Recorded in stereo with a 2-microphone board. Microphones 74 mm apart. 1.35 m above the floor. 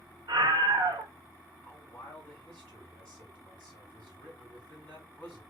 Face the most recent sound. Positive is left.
turn(degrees=20)  # may be behind; listen again after turning